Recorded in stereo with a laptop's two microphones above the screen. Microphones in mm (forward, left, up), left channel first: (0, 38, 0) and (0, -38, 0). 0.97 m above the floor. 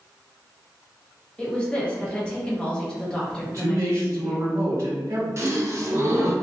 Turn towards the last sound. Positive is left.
turn(degrees=-35)  # may be behind; listen again after turning